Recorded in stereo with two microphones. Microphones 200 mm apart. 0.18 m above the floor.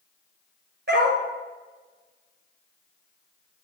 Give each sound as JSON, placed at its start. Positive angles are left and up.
{"t": 0.9, "sound": "a dog barking", "side_deg": -55, "distance_m": 1.6}